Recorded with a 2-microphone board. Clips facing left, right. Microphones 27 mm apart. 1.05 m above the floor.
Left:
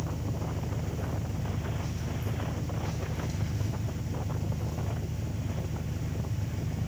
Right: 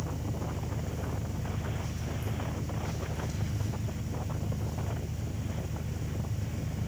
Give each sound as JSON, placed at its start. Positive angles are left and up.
{"t": 0.0, "sound": "an engine running", "side_deg": 20, "distance_m": 1.6}